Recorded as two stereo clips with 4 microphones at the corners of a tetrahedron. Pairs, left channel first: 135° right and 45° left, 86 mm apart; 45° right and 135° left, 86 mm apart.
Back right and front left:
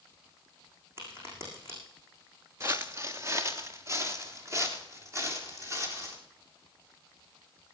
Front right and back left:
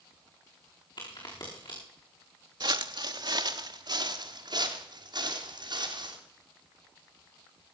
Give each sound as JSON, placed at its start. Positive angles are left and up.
{"t": 1.0, "sound": "a crack", "azimuth_deg": -15, "distance_m": 7.5}
{"t": 2.6, "sound": "footsteps", "azimuth_deg": 100, "distance_m": 0.8}